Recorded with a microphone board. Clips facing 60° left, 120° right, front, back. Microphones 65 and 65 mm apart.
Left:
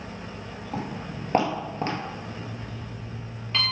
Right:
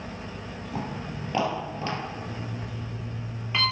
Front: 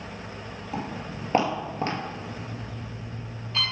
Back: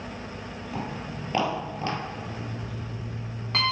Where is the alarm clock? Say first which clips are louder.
Right 1 dB, back 1 dB; 160° left, 3 m.